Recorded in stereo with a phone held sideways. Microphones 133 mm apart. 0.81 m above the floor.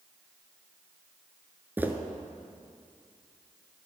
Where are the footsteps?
15° right (ahead or behind), 0.8 m.